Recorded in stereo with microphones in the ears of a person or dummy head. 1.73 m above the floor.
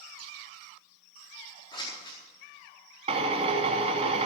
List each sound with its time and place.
1.7 s scissors: 25° left (ahead or behind), 4 m
3.1 s a drill: 35° right (ahead or behind), 2.5 m